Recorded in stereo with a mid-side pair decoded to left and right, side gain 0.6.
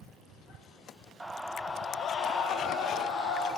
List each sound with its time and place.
1.2 s a scream: 15° right, 0.5 m; by 3.5 s 70° left, 1.5 m